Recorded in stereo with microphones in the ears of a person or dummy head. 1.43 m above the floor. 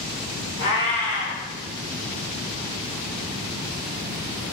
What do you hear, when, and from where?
0.6 s a cat meowing: 25° left (ahead or behind), 1.2 m